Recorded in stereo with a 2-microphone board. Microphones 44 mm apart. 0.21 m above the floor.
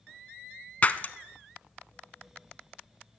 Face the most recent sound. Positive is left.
turn(degrees=35)  # may be behind; listen again after turning